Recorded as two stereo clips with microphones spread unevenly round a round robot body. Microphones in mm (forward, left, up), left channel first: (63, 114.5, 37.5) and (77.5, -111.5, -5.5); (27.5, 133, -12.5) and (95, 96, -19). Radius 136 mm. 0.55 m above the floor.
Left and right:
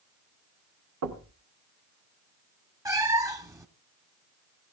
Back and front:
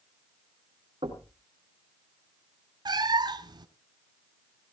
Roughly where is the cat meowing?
Ahead.